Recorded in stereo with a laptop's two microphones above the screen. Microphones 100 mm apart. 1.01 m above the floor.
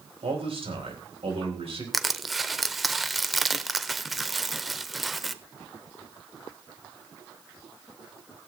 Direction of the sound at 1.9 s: Centre (ahead or behind).